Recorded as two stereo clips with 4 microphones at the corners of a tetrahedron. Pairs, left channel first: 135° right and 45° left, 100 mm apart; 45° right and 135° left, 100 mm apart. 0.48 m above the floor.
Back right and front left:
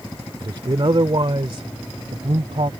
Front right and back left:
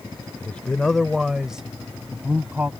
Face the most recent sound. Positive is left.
turn(degrees=65)